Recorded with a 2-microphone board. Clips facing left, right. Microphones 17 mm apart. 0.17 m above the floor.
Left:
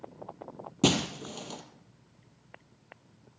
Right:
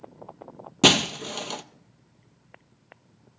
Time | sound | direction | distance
0.8 | breaking glass | 35° right (ahead or behind) | 0.7 m